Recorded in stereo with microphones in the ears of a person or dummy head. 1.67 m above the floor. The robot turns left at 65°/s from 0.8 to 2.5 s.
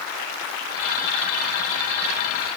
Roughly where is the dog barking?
I don't hear a dog barking.